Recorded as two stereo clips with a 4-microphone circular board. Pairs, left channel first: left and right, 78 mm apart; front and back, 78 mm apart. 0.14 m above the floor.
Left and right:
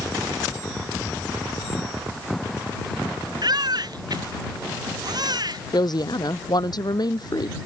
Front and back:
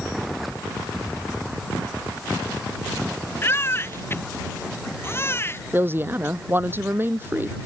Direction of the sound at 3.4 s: 60° right.